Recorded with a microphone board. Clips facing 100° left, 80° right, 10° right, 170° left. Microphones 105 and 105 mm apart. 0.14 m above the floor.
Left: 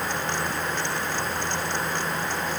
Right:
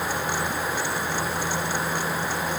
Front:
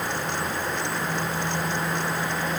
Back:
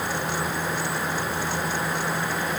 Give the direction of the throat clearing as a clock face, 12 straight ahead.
I don't hear throat clearing.